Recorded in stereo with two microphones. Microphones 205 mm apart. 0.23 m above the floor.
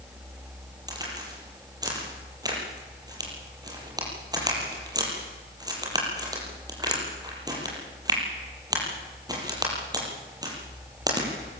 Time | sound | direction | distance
0.9 | a crack | 20° right (ahead or behind) | 7.5 m